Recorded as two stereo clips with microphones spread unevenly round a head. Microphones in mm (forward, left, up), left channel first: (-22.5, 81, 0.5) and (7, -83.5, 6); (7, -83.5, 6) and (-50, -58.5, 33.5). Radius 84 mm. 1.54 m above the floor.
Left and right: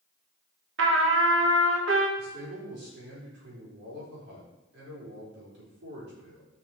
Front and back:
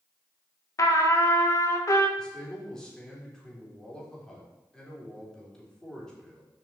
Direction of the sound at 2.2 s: 105° right.